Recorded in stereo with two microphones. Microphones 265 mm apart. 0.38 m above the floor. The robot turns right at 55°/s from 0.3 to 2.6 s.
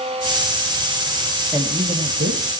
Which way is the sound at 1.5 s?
170° right.